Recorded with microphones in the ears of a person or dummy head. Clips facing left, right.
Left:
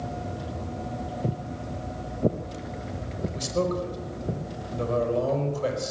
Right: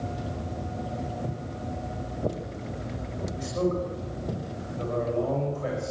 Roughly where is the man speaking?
Left.